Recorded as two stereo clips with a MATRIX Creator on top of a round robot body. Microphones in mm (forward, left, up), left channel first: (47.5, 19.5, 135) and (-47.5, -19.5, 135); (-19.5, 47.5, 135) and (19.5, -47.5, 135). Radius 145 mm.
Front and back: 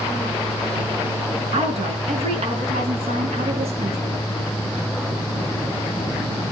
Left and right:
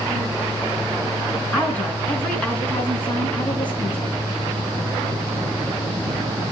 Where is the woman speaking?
170° right, 5 m.